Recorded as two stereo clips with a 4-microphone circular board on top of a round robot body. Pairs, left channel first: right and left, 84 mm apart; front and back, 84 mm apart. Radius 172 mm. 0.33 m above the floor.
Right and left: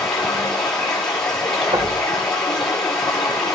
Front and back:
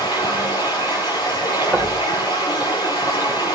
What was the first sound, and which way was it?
Running water, 10° right.